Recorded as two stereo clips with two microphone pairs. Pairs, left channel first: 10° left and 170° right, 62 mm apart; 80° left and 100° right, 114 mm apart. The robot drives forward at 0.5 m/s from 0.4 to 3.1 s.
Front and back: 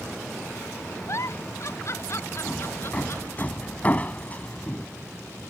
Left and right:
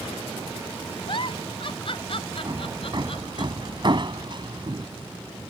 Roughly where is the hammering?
Ahead right.